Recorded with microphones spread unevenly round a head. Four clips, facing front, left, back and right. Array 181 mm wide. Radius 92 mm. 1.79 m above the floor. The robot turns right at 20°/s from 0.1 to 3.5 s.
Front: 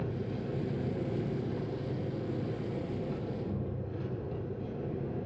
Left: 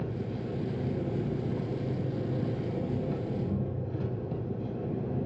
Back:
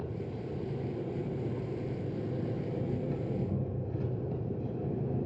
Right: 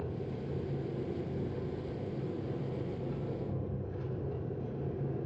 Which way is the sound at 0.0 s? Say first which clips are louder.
Left 4 dB, front 2 dB; 55° left.